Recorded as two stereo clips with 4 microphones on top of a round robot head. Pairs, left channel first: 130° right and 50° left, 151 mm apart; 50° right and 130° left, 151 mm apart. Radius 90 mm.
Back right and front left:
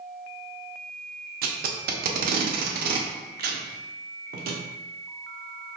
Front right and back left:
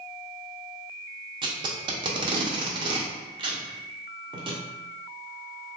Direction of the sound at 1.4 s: 70° left.